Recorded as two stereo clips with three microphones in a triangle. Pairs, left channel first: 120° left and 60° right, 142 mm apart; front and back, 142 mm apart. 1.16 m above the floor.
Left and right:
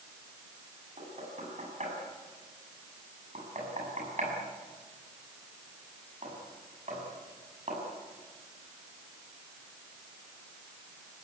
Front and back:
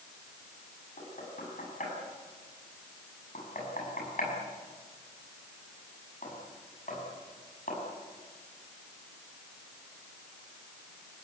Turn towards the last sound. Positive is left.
turn(degrees=-25)